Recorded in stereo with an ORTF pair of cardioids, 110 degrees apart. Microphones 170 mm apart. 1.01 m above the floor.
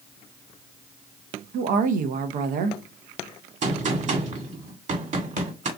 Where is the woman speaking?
65° right, 0.7 m.